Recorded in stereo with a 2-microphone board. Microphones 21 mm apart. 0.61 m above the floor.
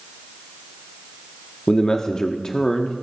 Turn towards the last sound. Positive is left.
turn(degrees=35)  # may be behind; listen again after turning